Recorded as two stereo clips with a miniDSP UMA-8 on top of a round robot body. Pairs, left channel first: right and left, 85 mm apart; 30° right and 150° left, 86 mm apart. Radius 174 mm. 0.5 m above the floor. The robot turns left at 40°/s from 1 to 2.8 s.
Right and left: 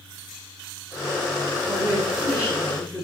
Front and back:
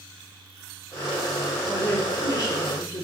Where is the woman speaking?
45° left, 8 m; by 3.0 s straight ahead, 8 m.